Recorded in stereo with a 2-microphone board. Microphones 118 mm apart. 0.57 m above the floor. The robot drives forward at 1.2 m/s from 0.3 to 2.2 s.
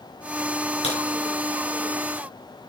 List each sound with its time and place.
0.8 s a crack: 65° left (ahead or behind), 4 m; by 1.0 s 70° left (ahead or behind), 4 m